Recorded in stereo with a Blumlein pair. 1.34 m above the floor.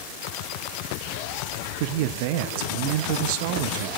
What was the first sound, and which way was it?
A man speaking, 45° right.